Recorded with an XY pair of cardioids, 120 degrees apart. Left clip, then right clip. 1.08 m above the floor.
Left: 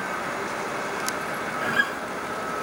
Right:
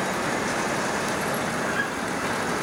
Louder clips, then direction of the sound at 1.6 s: Left 2 dB; 40° left.